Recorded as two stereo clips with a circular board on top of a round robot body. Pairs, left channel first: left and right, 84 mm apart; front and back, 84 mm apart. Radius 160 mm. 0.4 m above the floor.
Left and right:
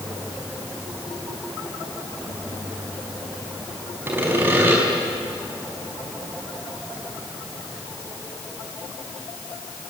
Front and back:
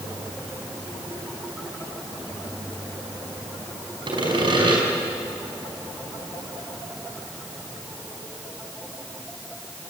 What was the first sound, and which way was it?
Sawing, 155° right.